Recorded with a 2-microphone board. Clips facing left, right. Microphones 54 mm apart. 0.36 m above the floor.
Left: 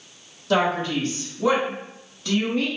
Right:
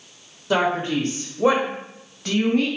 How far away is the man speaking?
About 1.2 m.